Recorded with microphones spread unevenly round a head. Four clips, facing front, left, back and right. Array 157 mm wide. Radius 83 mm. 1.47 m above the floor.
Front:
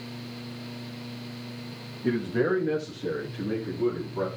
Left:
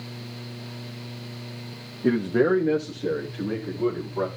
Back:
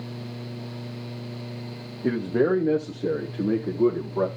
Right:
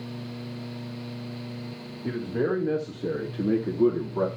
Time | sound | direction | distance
2.0 | a man speaking | 140° left | 1.0 m